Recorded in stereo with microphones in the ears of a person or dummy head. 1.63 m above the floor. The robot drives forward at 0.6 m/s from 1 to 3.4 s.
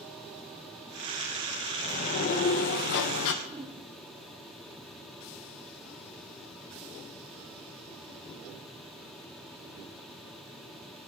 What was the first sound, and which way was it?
A sliding door, 35° left (ahead or behind).